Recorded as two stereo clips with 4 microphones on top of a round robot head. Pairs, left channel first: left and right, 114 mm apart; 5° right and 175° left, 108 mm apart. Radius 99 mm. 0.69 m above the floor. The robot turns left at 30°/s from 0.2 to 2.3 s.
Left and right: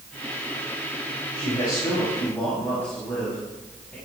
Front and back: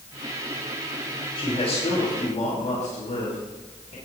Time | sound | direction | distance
1.4 | a man speaking | 40° left | 6 m